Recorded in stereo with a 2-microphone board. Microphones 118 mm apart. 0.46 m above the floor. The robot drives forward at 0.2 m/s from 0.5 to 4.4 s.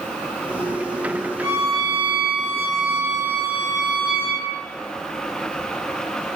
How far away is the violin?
About 1.5 m.